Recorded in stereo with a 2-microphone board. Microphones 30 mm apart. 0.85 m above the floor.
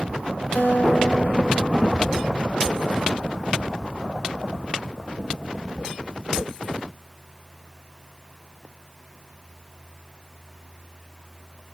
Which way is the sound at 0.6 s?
55° left (ahead or behind).